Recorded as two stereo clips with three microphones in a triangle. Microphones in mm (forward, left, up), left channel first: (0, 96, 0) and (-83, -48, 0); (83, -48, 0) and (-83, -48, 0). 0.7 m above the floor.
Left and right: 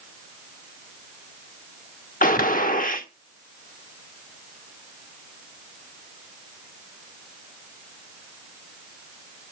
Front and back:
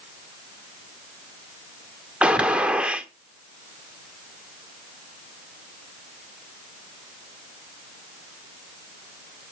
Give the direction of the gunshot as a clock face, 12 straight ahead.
9 o'clock.